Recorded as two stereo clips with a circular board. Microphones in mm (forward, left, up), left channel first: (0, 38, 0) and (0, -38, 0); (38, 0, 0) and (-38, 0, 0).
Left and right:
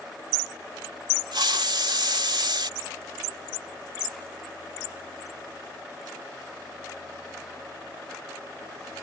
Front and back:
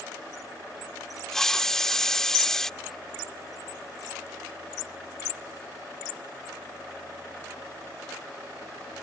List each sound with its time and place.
1.3 s a hiss: 85° right